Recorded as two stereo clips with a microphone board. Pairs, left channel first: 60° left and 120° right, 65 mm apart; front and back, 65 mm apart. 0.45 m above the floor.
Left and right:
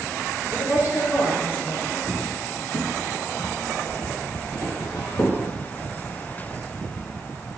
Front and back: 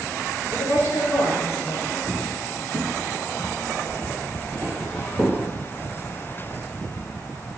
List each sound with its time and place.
0.5 s a woman speaking: 30° left, 2 m
2.1 s footsteps: 55° left, 1.5 m; by 5.4 s 70° left, 5.5 m